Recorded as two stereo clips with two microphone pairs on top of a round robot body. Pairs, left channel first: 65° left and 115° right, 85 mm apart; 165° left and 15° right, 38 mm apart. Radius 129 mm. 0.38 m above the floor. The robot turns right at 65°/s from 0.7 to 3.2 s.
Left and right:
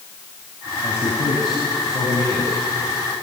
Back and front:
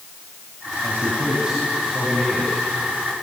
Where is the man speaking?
5° left, 4 m; by 3.2 s 155° left, 4 m.